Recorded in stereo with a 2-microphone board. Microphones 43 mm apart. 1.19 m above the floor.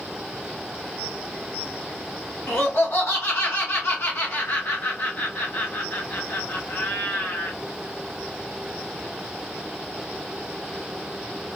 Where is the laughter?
65° left (ahead or behind), 0.9 m.